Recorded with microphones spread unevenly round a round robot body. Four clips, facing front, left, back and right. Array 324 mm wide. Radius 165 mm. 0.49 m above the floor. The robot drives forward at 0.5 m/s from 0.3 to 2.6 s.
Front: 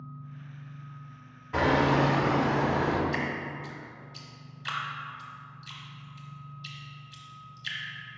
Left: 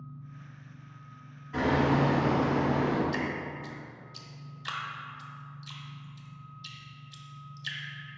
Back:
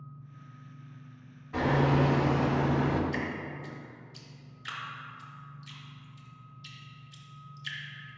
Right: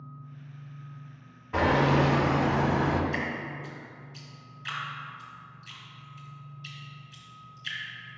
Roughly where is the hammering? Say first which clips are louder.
Right 2 dB, front 2 dB; ahead right.